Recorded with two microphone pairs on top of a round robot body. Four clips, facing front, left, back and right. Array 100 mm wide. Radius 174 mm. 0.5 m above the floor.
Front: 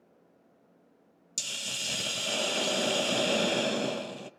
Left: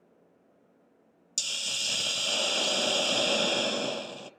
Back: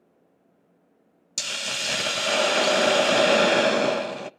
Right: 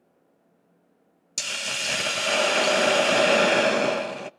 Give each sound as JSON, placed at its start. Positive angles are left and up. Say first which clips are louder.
{"t": 1.4, "sound": "a hiss", "louder": "right 8 dB, back 9 dB", "azimuth_deg": -145, "distance_m": 0.8}